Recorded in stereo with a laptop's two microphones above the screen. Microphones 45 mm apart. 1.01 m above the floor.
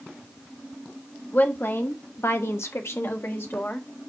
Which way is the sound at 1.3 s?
45° left (ahead or behind).